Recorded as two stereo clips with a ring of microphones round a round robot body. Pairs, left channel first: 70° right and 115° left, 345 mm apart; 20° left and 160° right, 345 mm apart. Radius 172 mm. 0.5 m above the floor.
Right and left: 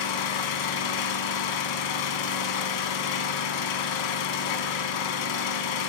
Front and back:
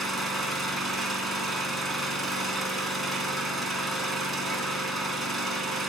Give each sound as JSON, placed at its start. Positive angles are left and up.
{"t": 0.0, "sound": "an engine running", "azimuth_deg": -65, "distance_m": 1.0}